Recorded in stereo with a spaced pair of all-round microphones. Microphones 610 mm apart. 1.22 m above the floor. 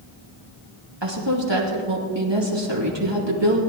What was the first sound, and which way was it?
A woman speaking, 45° right (ahead or behind).